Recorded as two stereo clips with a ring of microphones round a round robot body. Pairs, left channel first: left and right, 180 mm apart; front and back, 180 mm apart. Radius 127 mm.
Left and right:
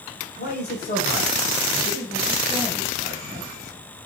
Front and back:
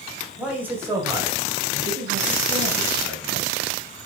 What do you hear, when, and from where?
0.4 s a man speaking: 95° left, 1.4 m; by 3.5 s 155° right, 1.5 m